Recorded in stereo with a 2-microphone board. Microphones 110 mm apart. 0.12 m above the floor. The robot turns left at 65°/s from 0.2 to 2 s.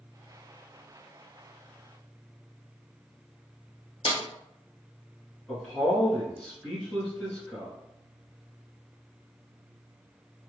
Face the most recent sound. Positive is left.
turn(degrees=10)  # may be behind; listen again after turning